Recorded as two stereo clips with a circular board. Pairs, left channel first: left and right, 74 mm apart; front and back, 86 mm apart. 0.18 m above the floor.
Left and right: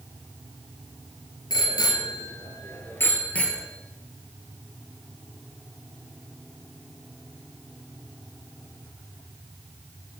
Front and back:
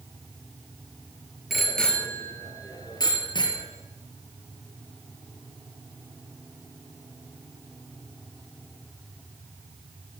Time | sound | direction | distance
1.5 | a bicycle bell | 95° left | 2.5 m